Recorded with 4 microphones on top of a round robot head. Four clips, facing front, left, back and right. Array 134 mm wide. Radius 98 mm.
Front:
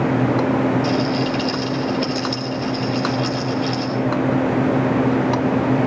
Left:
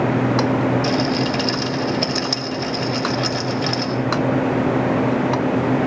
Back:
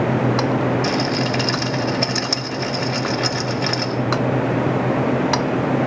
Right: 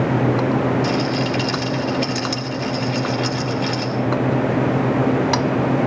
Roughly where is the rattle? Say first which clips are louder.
Left 1 dB, front 1 dB; behind left.